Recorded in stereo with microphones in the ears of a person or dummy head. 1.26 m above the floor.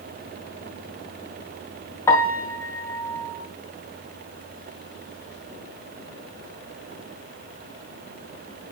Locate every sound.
2.1 s a piano: 10° left (ahead or behind), 1.7 m